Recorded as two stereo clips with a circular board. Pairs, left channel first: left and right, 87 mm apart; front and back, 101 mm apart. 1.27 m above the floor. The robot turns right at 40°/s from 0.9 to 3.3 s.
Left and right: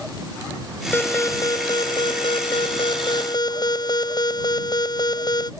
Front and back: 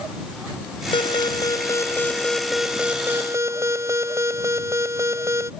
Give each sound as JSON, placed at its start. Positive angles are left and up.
{"t": 0.9, "sound": "an alarm", "azimuth_deg": 25}